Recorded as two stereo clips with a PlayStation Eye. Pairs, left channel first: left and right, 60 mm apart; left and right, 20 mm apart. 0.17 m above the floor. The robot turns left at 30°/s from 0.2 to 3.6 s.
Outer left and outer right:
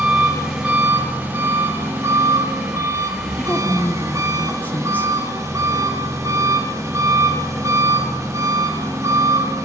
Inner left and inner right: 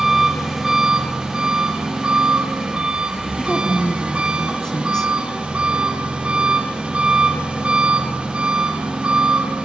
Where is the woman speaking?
25° left (ahead or behind), 1.4 m; by 5.1 s 30° left (ahead or behind), 1.4 m.